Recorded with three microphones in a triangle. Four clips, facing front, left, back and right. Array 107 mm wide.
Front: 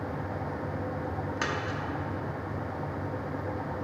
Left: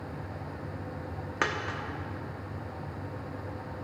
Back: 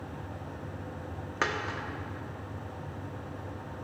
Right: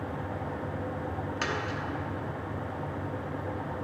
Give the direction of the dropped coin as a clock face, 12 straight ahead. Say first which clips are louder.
Left 3 dB, back 3 dB; 8 o'clock.